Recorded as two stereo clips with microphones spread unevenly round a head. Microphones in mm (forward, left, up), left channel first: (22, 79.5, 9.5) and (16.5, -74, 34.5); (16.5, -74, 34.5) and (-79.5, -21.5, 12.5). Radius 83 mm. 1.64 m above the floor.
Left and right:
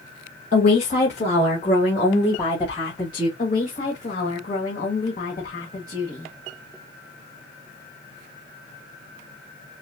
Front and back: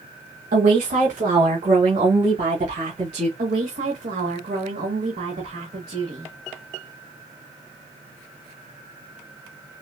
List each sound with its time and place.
0.5 s a woman speaking: 140° left, 1.2 m; by 3.3 s 155° left, 2.5 m
3.4 s a woman speaking: 135° left, 1.3 m